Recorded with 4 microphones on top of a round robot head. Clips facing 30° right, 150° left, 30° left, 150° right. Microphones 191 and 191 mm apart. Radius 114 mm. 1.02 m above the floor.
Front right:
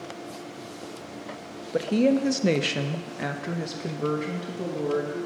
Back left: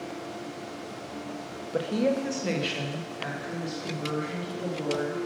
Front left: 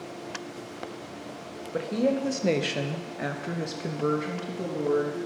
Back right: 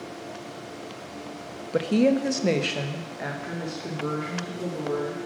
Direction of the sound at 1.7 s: 105° right.